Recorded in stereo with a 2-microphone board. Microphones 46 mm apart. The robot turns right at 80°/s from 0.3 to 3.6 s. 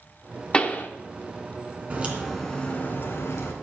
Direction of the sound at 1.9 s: 35° right.